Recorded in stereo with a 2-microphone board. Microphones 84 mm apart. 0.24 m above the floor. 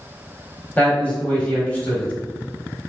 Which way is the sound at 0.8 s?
15° left (ahead or behind).